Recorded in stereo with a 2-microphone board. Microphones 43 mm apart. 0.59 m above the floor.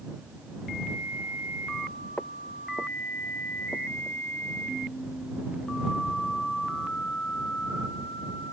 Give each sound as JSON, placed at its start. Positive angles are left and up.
{"t": 2.2, "sound": "footsteps", "side_deg": 40}